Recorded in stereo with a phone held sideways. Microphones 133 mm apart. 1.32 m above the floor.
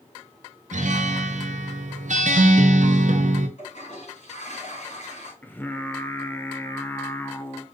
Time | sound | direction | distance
0.7 | a guitar | 65° right (ahead or behind) | 0.7 m
3.6 | a toilet flushing | 60° left (ahead or behind) | 2.5 m
5.4 | singing | 15° left (ahead or behind) | 0.5 m